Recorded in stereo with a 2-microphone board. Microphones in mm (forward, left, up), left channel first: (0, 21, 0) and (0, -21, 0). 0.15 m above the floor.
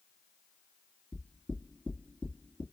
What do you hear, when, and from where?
1.1 s knocking: 20° left (ahead or behind), 2 m